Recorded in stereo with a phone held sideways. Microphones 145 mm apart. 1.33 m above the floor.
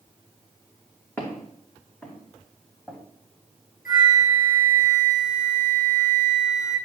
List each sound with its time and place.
1.2 s footsteps: 15° left (ahead or behind), 4 m; by 3.0 s 5° left (ahead or behind), 5 m
3.9 s a flute: 75° left (ahead or behind), 4 m